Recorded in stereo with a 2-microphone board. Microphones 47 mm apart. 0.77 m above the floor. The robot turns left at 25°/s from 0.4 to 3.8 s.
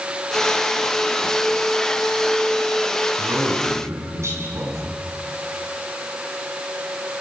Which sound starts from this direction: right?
A man speaking, at 3.2 s.